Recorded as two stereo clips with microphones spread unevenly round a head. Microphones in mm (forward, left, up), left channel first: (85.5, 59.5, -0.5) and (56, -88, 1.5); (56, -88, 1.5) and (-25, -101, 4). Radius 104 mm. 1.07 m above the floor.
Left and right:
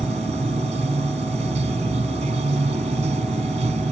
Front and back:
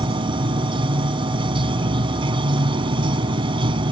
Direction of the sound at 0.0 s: 165° right.